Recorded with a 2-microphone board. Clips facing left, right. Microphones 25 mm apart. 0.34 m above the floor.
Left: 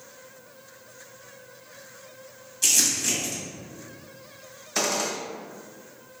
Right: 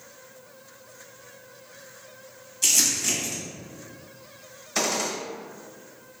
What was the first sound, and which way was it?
Crumpling, centre (ahead or behind).